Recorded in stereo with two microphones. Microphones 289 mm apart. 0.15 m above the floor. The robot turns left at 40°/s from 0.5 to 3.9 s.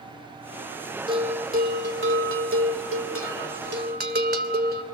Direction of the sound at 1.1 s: 20° right.